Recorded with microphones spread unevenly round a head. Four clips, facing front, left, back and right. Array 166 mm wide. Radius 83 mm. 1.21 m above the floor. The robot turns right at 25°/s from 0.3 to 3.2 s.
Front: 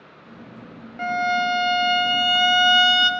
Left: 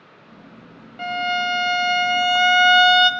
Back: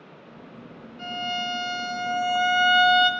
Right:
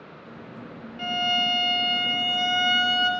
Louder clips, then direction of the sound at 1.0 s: Left 4 dB, front 9 dB; 30° left.